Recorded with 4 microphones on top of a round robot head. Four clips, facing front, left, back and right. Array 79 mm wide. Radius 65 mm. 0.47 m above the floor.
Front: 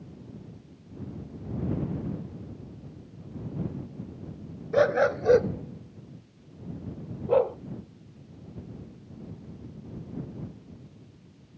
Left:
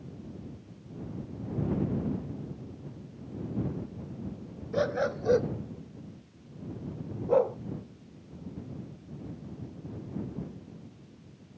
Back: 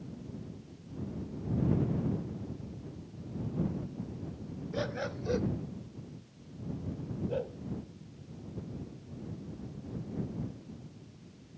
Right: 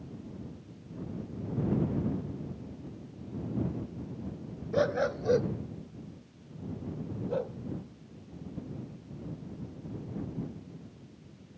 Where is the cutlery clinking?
No cutlery clinking in this recording.